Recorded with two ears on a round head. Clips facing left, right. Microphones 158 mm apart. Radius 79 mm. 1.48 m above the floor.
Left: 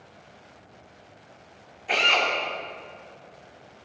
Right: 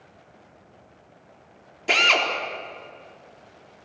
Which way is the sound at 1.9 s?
80° right.